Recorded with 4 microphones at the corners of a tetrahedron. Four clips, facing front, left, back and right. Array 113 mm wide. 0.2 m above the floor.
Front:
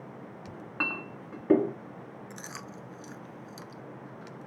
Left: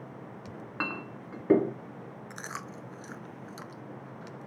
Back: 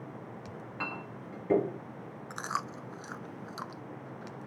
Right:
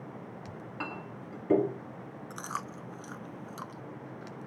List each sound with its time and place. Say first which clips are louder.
0.5 s a clink: left 5 dB, front 4 dB; 55° left, 1.8 m
2.3 s chewing: right 4 dB, back 12 dB; 165° right, 0.6 m